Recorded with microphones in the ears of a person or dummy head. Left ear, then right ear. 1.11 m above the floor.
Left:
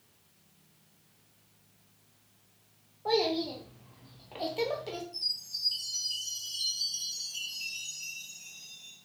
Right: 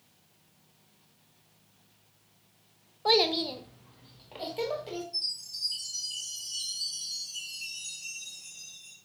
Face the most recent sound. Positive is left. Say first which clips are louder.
# even
turn(degrees=35)  # may be behind; listen again after turning